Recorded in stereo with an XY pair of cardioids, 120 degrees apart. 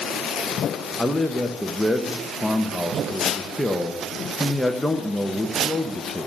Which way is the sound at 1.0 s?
5° left.